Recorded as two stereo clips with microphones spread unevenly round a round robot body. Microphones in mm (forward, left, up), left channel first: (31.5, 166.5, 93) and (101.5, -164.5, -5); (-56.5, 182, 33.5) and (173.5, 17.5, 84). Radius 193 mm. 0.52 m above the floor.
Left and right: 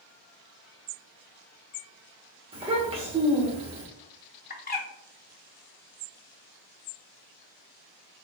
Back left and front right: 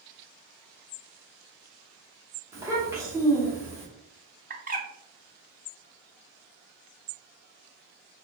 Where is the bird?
30° left, 0.7 m.